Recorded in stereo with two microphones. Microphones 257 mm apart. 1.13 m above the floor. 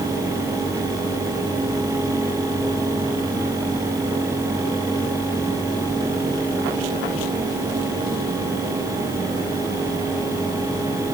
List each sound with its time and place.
Only background noise.